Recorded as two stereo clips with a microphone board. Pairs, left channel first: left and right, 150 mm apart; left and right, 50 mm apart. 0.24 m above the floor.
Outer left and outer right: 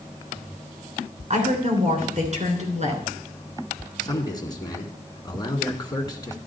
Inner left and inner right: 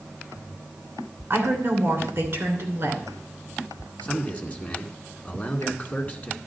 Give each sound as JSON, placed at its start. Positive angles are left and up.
{"t": 1.3, "sound": "a woman speaking", "side_deg": -45, "distance_m": 2.5}
{"t": 4.0, "sound": "a man speaking", "side_deg": 30, "distance_m": 2.0}